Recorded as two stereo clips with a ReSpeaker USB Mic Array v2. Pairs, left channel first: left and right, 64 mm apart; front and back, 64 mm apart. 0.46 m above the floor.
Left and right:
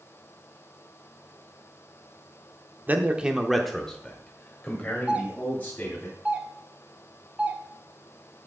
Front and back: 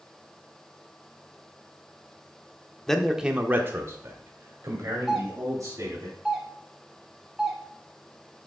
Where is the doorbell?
115° right, 1.5 m.